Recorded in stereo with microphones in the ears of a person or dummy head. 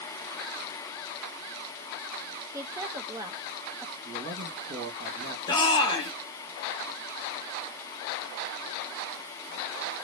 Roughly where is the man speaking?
Right.